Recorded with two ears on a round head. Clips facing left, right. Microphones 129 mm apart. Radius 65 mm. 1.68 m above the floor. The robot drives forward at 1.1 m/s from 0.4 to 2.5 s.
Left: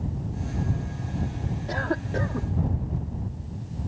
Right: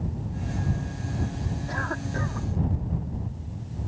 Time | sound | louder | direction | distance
1.7 | a cough | left 6 dB | 35° left (ahead or behind) | ?